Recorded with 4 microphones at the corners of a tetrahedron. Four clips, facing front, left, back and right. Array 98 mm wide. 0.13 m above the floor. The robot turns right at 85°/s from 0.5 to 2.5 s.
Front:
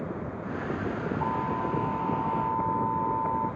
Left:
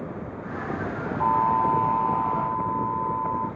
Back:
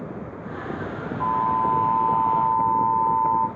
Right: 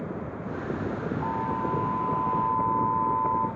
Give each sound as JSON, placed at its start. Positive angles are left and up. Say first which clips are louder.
{"t": 1.2, "sound": "an alarm", "louder": "left 10 dB, back 10 dB", "azimuth_deg": 125, "distance_m": 5.5}